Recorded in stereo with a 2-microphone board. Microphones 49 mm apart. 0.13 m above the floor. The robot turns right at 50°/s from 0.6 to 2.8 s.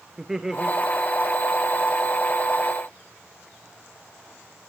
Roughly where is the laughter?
Centre.